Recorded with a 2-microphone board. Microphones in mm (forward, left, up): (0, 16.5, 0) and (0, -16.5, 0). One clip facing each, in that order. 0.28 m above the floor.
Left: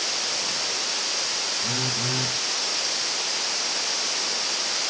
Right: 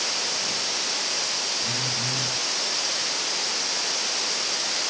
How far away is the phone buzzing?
About 1.3 m.